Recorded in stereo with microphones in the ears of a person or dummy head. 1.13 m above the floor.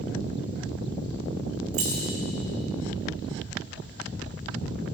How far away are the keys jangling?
About 2 m.